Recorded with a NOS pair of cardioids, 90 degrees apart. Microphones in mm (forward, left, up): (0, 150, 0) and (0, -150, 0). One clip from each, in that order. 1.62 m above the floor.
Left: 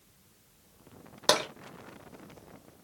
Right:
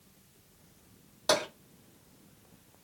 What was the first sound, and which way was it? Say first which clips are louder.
Tapping: left 2 dB; 55° left.